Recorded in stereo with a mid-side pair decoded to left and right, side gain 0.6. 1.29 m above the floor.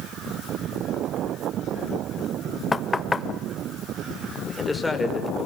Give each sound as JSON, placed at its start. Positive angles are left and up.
{"t": 2.7, "sound": "knocking", "azimuth_deg": 20, "distance_m": 1.2}
{"t": 4.5, "sound": "a man speaking", "azimuth_deg": 15, "distance_m": 5.0}